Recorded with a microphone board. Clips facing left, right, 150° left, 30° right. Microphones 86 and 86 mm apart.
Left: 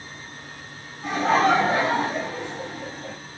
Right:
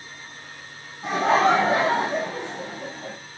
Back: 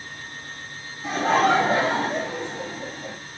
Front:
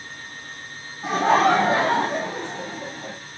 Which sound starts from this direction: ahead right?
Laughter, at 1.0 s.